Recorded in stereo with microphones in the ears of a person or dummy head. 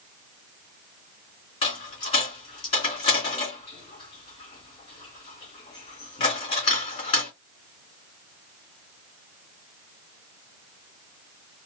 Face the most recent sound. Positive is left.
turn(degrees=30)  # may be behind; listen again after turning